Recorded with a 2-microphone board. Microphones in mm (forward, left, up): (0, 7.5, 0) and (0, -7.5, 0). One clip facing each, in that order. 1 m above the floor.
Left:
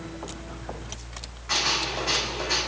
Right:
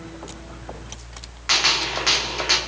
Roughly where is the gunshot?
Right.